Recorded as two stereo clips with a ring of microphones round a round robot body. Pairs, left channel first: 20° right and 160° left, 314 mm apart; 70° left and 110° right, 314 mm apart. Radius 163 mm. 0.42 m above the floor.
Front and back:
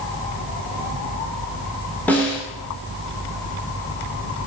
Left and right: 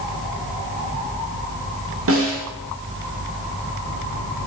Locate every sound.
2.1 s a snare drum: 105° right, 1.8 m